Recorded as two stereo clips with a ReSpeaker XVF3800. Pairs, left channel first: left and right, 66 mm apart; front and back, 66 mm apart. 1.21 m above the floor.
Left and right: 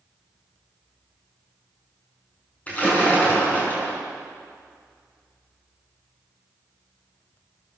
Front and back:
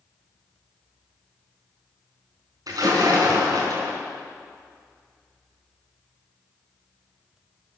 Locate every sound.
2.7 s a splash: 155° left, 6 m